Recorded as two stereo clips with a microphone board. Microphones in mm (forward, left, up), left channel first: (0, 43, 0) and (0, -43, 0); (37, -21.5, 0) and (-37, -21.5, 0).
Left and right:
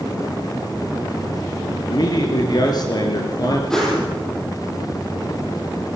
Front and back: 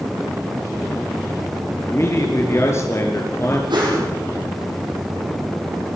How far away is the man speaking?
About 4.5 m.